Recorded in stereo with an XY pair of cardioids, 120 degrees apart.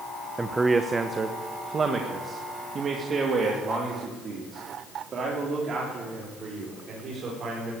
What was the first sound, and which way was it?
A man speaking, 15° right.